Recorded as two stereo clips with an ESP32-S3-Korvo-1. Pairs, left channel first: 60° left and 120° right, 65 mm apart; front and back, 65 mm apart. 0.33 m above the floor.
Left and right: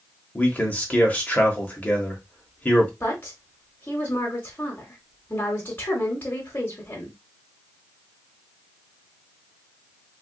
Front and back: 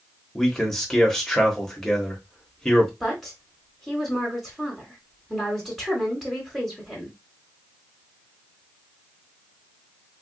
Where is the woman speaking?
100° left, 1.1 m.